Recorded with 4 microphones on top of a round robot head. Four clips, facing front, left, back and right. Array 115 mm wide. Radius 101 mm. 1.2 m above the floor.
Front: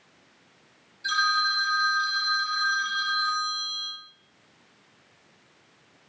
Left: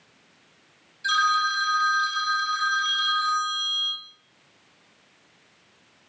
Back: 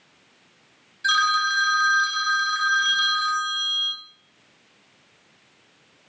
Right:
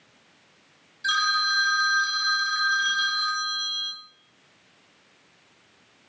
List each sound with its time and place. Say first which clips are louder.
1.0 s a phone ringing: left 3 dB, back 4 dB; 150° right, 1.3 m